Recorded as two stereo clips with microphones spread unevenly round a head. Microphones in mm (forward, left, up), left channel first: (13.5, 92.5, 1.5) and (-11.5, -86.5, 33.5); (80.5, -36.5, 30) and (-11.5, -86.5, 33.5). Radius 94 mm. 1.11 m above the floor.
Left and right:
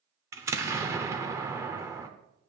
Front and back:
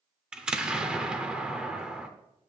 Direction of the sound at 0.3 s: 85° right.